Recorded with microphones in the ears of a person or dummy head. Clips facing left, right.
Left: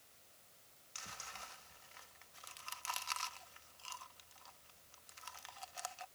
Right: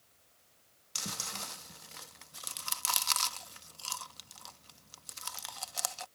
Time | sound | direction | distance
0.9 | chewing | 60° right (ahead or behind) | ?